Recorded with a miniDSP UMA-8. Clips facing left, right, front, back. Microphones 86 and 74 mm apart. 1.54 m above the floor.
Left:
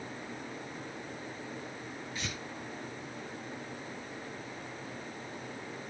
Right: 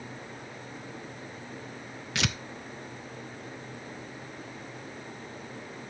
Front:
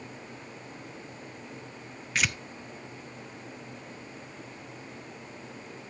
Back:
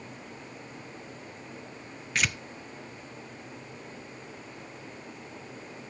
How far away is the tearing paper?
About 0.7 m.